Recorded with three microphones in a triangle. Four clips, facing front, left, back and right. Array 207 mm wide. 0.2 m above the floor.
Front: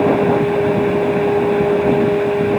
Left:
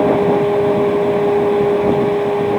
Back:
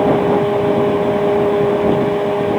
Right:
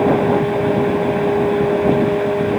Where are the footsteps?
No footsteps in this recording.